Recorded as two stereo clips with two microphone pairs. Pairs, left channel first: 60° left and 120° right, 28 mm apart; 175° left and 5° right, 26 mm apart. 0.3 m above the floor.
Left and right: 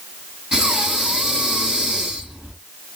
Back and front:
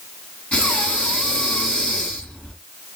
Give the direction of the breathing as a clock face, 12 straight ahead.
6 o'clock.